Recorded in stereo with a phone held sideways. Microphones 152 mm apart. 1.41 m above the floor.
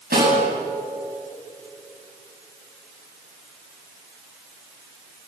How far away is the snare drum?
About 8.5 m.